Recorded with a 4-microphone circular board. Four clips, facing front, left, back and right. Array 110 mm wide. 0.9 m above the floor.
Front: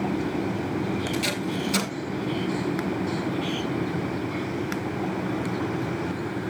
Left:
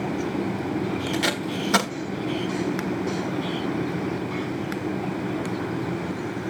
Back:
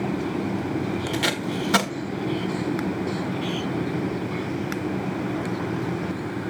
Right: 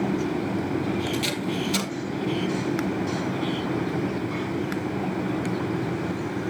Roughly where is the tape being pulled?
Behind left.